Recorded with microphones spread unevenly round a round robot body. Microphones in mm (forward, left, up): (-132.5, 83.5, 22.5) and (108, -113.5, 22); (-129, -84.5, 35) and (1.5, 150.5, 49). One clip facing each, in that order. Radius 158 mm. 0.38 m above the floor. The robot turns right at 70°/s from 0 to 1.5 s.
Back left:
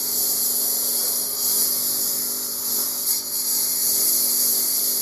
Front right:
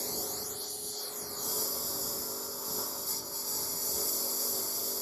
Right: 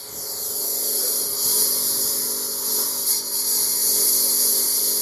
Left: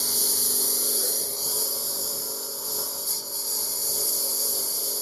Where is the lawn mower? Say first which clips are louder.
Back left 2 dB, left 3 dB; 80° left; by 5.0 s 175° right.